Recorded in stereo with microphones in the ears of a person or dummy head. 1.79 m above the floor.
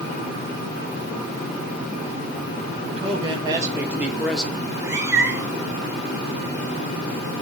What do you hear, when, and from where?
2.8 s a man speaking: 40° right (ahead or behind), 2 m; by 4.5 s 5° left (ahead or behind), 2.5 m
4.7 s a cat meowing: 15° right (ahead or behind), 3.5 m